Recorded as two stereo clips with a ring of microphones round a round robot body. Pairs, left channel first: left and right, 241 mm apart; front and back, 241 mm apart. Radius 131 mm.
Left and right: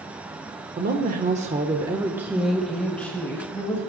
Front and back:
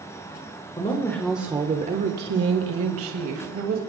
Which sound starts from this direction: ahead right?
A woman speaking, at 0.8 s.